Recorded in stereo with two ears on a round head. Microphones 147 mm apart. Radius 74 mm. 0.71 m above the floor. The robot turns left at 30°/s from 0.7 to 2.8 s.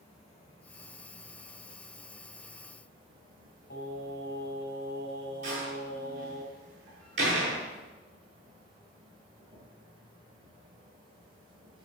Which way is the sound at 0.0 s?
35° left.